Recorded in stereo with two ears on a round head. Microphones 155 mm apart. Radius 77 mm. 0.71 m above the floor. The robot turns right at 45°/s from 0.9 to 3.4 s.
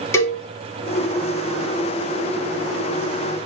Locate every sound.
0.1 s a cowbell: 15° left (ahead or behind), 1.7 m